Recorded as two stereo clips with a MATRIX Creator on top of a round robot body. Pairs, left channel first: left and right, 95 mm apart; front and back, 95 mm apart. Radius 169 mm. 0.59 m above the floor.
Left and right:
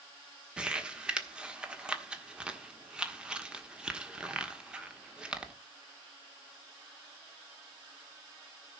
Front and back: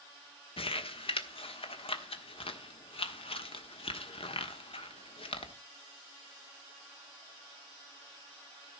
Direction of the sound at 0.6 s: 10° right.